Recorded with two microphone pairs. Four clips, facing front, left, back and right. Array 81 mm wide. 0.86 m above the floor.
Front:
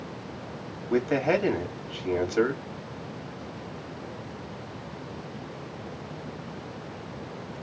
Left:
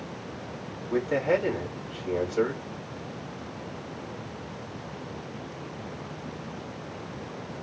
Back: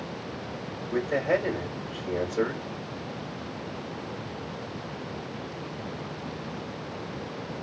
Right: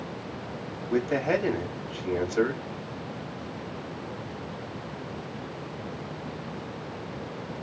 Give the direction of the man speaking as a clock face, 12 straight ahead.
1 o'clock.